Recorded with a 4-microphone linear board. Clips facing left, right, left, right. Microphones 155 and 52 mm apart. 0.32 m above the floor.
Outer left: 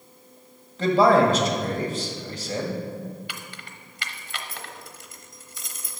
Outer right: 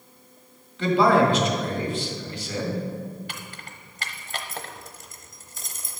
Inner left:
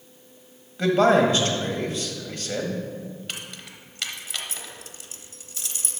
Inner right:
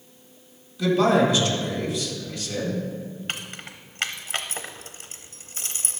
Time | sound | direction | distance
0.8 | a man speaking | 45° left (ahead or behind) | 1.7 m
3.3 | keys jangling | 45° right (ahead or behind) | 0.8 m